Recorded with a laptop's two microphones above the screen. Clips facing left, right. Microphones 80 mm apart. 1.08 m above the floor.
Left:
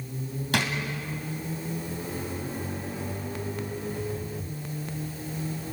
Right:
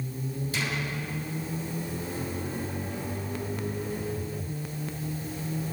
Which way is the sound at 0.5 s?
75° left (ahead or behind).